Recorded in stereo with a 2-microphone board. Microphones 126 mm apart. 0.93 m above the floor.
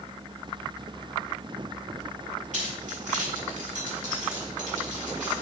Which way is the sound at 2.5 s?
75° right (ahead or behind).